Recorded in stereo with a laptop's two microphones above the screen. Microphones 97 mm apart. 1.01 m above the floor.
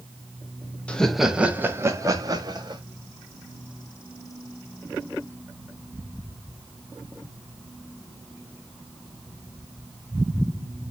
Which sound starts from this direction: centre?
Laughter, at 0.9 s.